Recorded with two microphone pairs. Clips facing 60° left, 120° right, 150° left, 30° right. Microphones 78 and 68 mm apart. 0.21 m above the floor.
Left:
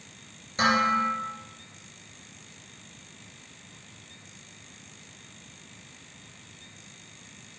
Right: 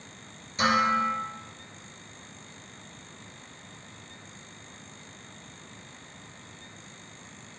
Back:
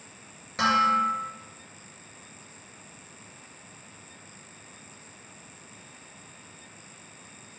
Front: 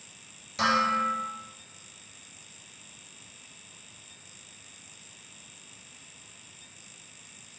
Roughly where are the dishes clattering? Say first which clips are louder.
Even, back 3 dB; left.